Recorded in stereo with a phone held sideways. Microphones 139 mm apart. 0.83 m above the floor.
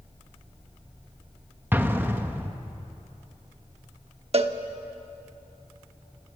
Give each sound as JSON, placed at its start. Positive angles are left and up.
{"t": 1.7, "sound": "an explosion", "side_deg": -15, "distance_m": 1.3}
{"t": 4.3, "sound": "a cowbell", "side_deg": -50, "distance_m": 1.1}